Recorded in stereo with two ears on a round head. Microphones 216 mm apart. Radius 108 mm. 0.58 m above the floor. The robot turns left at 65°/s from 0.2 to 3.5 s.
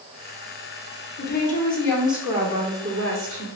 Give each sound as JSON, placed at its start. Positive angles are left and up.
{"t": 1.2, "sound": "a woman speaking", "azimuth_deg": 55, "distance_m": 1.4}